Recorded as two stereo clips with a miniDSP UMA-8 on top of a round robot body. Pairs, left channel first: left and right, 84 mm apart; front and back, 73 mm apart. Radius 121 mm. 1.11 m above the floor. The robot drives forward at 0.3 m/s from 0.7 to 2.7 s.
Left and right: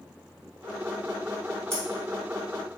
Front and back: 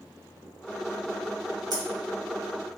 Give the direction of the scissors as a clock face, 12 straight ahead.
5 o'clock.